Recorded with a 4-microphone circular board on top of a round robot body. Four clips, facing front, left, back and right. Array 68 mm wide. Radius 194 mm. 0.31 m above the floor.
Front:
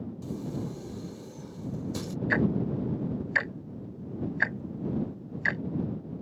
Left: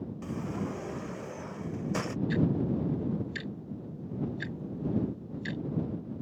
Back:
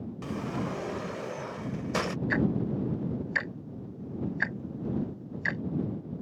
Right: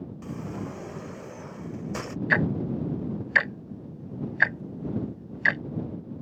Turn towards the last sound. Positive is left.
turn(degrees=-85)